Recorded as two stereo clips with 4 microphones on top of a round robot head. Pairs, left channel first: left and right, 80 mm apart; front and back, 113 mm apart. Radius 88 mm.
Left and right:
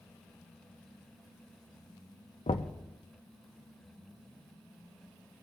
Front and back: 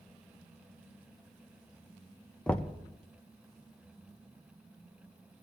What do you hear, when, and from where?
2.5 s knocking: 80° left, 0.6 m